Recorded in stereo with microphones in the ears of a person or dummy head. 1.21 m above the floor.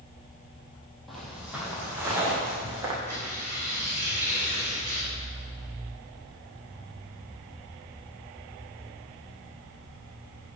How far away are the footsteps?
About 2 m.